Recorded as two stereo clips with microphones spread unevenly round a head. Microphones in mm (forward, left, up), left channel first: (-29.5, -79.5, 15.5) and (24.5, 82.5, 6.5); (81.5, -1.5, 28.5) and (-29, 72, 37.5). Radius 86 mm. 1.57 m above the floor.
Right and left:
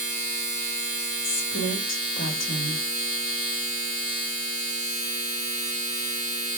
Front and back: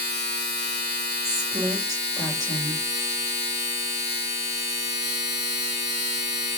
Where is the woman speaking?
105° right, 1.1 m.